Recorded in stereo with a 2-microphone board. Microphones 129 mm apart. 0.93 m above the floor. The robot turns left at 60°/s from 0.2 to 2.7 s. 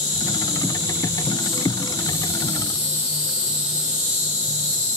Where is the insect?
75° left, 5 m; by 5.0 s 75° right, 5 m.